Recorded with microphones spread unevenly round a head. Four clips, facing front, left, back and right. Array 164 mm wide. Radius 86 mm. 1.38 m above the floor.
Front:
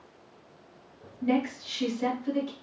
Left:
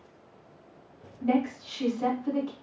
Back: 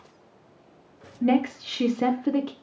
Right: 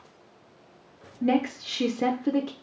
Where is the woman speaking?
135° right, 0.5 m.